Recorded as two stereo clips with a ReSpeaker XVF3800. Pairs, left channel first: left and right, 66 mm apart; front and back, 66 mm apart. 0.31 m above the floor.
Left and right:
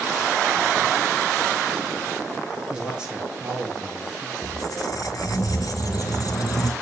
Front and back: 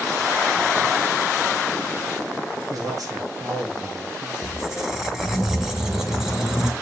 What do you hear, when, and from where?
2.7 s a man speaking: 165° right, 5 m
4.4 s a squeak: 95° left, 1.8 m